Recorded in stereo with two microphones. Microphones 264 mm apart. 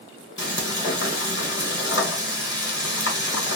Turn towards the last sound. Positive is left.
turn(degrees=50)  # may be behind; listen again after turning